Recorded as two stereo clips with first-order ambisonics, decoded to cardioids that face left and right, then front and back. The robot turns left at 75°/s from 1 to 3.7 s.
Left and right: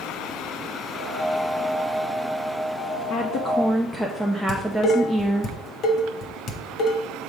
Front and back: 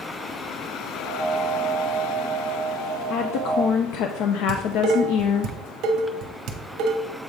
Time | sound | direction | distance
3.1 | a woman speaking | 50° left | 0.7 m
4.5 | dishes clattering | 140° left | 1.1 m